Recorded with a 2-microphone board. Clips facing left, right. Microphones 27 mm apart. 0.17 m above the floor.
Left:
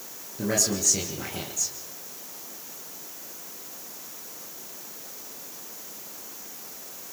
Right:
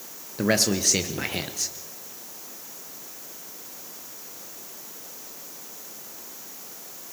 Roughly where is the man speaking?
Right.